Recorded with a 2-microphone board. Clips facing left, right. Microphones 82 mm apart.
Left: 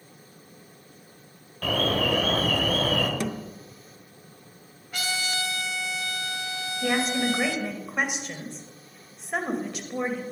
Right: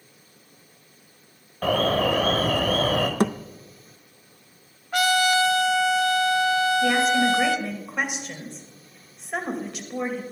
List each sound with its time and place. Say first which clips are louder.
1.6 s an alarm: right 4 dB; 35° right (ahead or behind), 1.7 m
3.2 s a thud: right 7 dB; 50° right (ahead or behind), 0.6 m
4.9 s a trumpet: right 11 dB; 55° right (ahead or behind), 0.7 m
6.8 s a woman speaking: right 5 dB; 5° left (ahead or behind), 2 m